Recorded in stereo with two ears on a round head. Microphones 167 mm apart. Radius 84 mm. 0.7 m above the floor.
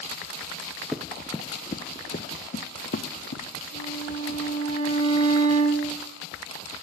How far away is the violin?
About 5.5 m.